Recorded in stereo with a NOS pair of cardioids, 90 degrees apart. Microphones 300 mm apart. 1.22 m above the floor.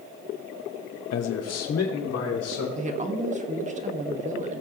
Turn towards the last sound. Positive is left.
turn(degrees=-25)